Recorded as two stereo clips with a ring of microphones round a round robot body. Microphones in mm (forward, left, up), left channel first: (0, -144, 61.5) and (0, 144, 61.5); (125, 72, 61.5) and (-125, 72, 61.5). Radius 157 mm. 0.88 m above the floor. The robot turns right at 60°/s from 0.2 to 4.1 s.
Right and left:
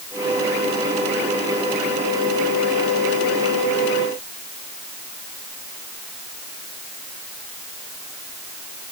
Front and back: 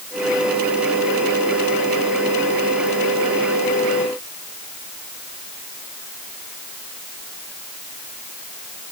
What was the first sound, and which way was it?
Only background noise.